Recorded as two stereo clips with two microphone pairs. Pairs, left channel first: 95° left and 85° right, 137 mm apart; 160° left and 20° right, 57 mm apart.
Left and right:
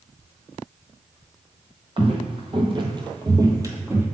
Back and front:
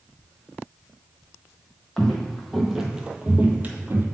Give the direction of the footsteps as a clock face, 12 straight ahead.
4 o'clock.